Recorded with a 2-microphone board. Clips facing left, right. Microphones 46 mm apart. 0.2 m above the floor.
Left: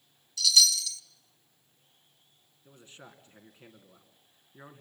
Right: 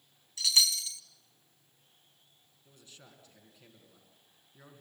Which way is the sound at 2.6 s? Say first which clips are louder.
Left 6 dB; 35° left (ahead or behind).